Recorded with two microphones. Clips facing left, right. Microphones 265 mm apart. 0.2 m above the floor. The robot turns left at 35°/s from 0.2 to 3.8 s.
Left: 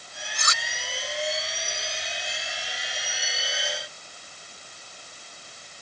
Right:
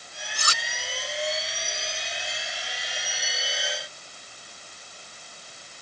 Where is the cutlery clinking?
40° right (ahead or behind); by 0.6 s 30° right (ahead or behind).